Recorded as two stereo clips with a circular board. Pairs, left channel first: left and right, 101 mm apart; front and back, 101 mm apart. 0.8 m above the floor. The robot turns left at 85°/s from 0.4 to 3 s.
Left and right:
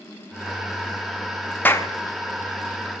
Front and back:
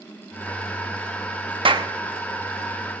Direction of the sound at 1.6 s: 160° left.